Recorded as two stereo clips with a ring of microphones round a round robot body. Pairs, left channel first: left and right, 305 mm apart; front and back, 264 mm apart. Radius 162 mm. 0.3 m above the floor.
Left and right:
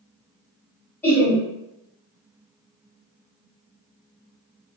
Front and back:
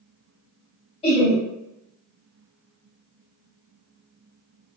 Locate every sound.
1.0 s laughter: 20° left, 1.6 m